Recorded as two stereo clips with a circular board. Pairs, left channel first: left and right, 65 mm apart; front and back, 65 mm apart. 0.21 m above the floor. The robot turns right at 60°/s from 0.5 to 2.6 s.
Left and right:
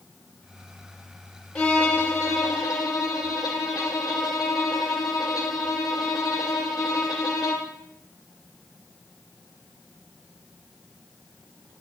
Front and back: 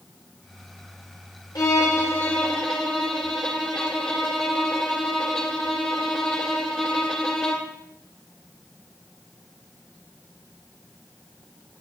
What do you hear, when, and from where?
1.6 s a violin: 20° left, 1.9 m; by 7.7 s 80° left, 1.9 m